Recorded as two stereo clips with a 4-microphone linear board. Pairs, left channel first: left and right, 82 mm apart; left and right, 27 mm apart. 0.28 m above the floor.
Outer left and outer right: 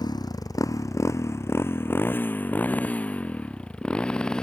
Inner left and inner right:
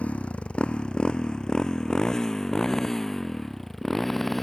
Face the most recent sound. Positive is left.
turn(degrees=10)  # may be behind; listen again after turning